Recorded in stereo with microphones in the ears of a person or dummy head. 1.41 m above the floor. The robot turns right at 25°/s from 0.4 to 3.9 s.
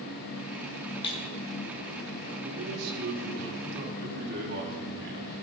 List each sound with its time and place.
1.0 s breaking glass: 25° left (ahead or behind), 1.1 m; by 1.2 s 20° left (ahead or behind), 1.1 m
2.4 s a man speaking: 95° right, 3.5 m; by 5.3 s 60° right, 3.5 m